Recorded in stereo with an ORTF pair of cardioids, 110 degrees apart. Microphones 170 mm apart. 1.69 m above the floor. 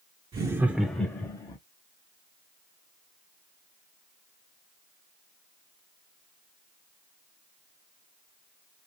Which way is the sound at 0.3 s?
30° right.